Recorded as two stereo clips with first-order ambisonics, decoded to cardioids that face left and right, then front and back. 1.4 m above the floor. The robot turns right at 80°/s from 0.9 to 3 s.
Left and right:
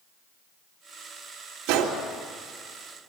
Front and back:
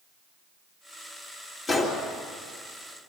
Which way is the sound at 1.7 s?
70° right.